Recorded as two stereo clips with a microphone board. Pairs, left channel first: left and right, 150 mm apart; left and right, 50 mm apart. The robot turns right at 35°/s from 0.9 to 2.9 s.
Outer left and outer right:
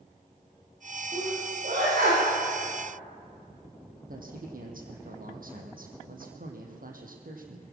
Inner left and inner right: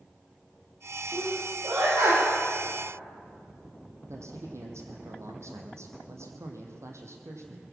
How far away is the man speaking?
About 4 m.